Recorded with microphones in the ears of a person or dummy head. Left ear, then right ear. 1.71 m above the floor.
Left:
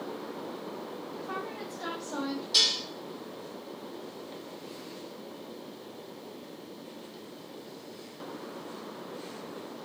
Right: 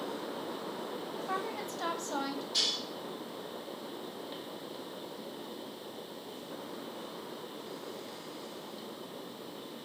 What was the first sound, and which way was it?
A woman speaking, 75° right (ahead or behind).